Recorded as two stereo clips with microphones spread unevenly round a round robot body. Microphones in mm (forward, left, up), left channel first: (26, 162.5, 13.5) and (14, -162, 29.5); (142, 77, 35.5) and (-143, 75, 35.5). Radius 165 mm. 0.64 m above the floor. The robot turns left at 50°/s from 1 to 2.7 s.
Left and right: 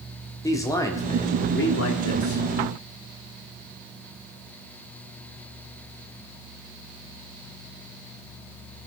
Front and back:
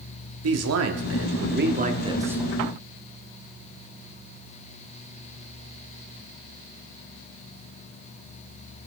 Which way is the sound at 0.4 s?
165° left.